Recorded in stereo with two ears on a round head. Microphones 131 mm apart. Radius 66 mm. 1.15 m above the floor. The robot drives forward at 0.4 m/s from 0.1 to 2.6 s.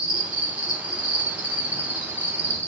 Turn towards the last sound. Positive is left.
turn(degrees=-20)  # may be behind; listen again after turning